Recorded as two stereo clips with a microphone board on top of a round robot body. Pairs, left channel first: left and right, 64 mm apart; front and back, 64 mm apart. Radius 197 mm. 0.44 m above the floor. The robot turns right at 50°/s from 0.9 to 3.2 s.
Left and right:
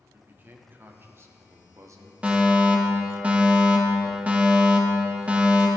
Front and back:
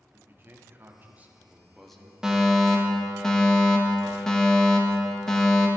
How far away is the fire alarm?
About 2 m.